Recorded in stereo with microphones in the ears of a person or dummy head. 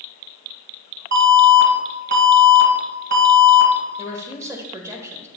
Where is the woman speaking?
10° right (ahead or behind), 1.4 m.